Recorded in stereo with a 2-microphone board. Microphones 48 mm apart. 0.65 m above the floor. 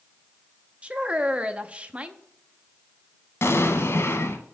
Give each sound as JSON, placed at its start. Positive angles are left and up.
{"t": 0.8, "sound": "a woman speaking", "side_deg": -25, "distance_m": 0.7}
{"t": 3.4, "sound": "an explosion", "side_deg": 70, "distance_m": 1.2}